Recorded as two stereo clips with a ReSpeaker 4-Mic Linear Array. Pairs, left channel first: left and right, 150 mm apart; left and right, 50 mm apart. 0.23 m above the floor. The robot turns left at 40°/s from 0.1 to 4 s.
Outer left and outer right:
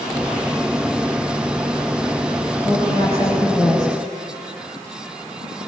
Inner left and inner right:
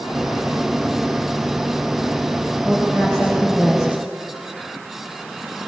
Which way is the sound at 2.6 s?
45° left.